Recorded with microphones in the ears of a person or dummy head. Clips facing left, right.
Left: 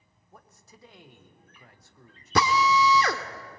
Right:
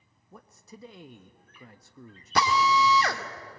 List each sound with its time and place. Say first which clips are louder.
0.3 s a man speaking: right 6 dB; 75° right (ahead or behind), 1.4 m
2.4 s a drill: left 1 dB; 70° left (ahead or behind), 1.6 m